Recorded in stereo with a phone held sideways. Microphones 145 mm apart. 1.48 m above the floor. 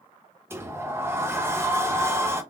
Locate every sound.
0.5 s a sliding door: 15° right (ahead or behind), 0.6 m